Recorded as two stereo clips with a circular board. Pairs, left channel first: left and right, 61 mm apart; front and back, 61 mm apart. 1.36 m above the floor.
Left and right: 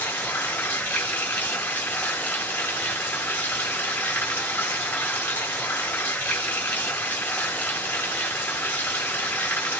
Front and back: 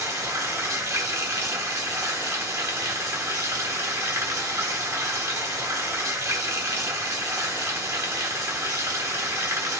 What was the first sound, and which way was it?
Running water, 150° left.